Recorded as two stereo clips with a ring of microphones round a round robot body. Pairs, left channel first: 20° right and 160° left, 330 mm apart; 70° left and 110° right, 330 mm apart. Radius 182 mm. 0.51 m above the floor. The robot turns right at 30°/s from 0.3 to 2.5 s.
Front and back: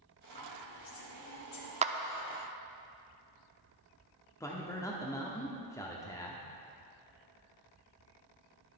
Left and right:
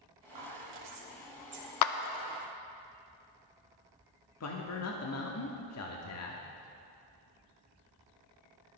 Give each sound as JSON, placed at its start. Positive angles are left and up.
{"t": 0.3, "sound": "whispering", "azimuth_deg": -90, "distance_m": 3.0}
{"t": 1.8, "sound": "a clap", "azimuth_deg": 90, "distance_m": 0.7}
{"t": 4.4, "sound": "a man speaking", "azimuth_deg": 55, "distance_m": 1.2}